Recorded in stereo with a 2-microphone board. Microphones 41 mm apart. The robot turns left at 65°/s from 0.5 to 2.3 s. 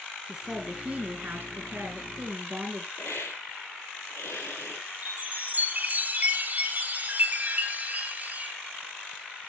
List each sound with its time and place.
0.3 s a woman speaking: 10° right, 2.5 m; by 2.9 s 130° right, 2.5 m
3.0 s a hiss: 75° left (ahead or behind), 3 m
5.0 s a chime: 40° right (ahead or behind), 1.8 m